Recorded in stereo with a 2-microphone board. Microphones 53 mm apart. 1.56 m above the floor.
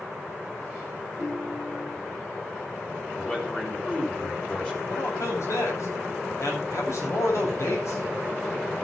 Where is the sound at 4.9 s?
70° left (ahead or behind), 8.5 m.